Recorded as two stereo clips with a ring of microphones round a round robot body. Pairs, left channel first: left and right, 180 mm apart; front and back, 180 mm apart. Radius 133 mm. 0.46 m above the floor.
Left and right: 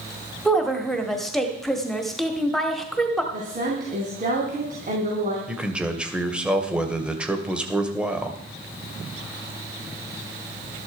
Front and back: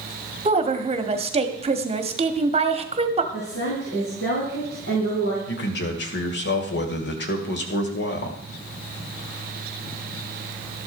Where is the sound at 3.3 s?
45° right, 3.5 m.